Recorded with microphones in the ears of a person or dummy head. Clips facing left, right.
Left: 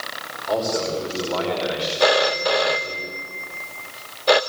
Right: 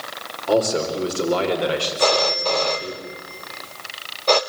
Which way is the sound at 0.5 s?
40° right (ahead or behind).